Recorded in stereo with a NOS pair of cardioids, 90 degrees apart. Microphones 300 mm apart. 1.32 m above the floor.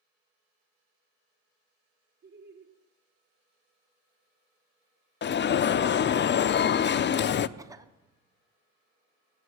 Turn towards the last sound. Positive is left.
turn(degrees=-10)